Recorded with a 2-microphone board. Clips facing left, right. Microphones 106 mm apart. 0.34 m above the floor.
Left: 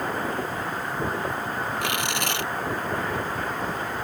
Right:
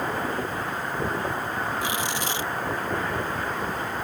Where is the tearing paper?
70° left (ahead or behind).